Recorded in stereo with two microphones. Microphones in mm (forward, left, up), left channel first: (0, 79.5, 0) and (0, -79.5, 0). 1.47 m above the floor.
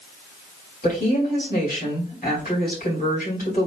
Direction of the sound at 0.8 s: 60° left (ahead or behind).